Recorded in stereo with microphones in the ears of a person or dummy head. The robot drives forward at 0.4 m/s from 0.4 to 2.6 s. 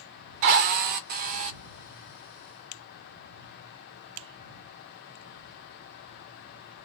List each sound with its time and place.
0.4 s a drill: 45° right (ahead or behind), 0.6 m; by 1.6 s 40° right (ahead or behind), 0.7 m